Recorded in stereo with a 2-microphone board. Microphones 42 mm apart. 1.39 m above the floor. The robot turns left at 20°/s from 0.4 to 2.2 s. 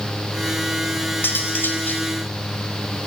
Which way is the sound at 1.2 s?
60° left (ahead or behind).